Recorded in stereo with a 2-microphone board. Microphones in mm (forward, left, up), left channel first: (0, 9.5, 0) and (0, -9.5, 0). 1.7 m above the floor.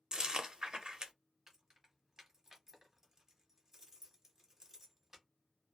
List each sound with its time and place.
0.1 s chewing: 40° right (ahead or behind), 0.6 m
1.5 s keys jangling: 20° right (ahead or behind), 1.1 m